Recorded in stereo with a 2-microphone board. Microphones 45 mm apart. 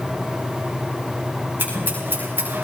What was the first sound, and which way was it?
Scissors, 50° right (ahead or behind).